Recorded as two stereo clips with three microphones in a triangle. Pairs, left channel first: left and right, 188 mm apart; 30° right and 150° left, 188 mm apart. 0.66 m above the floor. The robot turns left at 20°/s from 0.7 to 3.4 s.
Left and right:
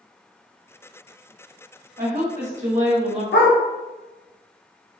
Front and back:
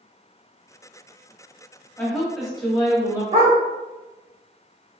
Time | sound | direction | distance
2.0 | a woman speaking | 110° right | 1.1 m
3.3 | a dog barking | 100° left | 0.6 m